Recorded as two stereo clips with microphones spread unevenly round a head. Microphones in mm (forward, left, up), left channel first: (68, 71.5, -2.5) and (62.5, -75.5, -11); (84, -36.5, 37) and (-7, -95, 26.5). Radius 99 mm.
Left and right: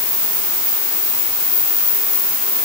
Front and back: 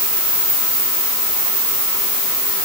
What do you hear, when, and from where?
Only background noise.